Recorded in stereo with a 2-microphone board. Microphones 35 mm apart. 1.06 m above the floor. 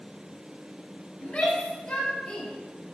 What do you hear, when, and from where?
1.2 s a shout: 25° left (ahead or behind), 4.5 m; by 2.5 s 15° left (ahead or behind), 5 m